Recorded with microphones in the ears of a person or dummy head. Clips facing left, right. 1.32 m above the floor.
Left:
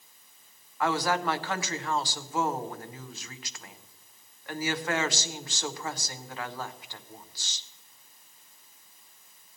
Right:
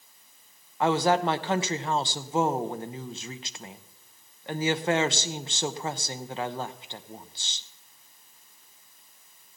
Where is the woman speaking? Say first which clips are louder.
Right 5 dB; 20° right (ahead or behind), 0.6 m.